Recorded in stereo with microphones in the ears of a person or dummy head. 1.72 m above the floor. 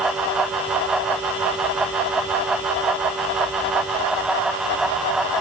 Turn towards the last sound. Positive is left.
No sound to turn to.